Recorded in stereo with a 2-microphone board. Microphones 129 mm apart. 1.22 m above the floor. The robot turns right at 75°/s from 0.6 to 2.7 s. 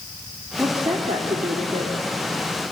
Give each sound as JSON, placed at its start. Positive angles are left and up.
{"t": 0.6, "sound": "a woman speaking", "azimuth_deg": -160, "distance_m": 3.0}